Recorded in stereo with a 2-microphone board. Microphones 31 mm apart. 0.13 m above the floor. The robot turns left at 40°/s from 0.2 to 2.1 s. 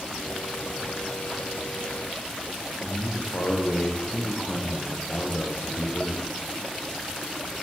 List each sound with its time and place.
2.8 s a man speaking: 70° left (ahead or behind), 3 m